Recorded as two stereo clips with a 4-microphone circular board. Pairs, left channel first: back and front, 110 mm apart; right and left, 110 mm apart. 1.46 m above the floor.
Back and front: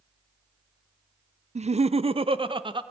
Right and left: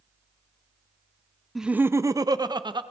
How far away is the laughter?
About 0.6 m.